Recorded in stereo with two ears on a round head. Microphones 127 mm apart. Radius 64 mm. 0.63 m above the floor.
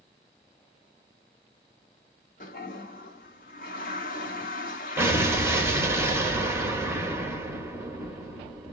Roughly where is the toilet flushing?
Left.